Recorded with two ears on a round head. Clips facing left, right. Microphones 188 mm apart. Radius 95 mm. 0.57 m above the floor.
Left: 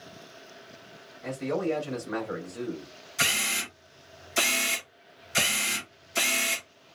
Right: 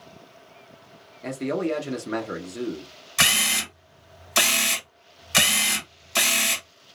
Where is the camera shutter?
75° right (ahead or behind), 1.0 m.